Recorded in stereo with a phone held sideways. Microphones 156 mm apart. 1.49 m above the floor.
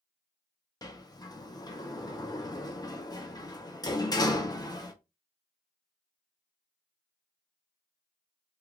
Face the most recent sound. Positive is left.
turn(degrees=25)  # may be behind; listen again after turning